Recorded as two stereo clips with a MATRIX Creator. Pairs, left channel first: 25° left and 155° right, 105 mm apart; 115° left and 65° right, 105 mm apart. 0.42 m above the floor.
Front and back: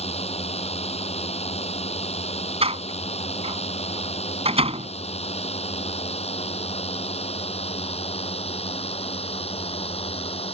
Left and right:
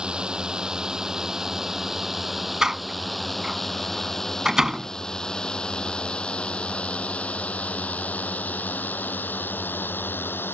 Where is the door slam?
150° right.